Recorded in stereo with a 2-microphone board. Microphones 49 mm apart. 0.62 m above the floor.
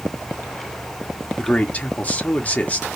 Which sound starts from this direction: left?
A man speaking, at 1.4 s.